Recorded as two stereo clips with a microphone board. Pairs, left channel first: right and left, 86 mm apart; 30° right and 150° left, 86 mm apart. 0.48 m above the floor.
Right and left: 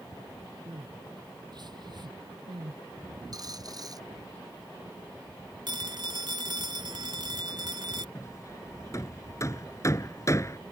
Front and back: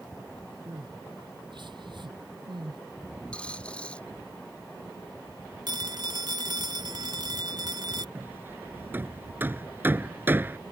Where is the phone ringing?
115° left.